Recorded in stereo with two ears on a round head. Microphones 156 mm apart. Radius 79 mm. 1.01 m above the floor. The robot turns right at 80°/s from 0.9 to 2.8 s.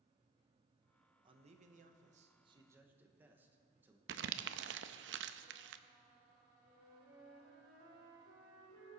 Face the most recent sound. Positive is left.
turn(degrees=-75)  # may be behind; listen again after turning